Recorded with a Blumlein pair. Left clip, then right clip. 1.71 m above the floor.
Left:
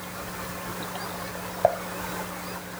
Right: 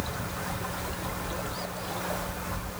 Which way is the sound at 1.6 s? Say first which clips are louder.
Left 15 dB; 40° left.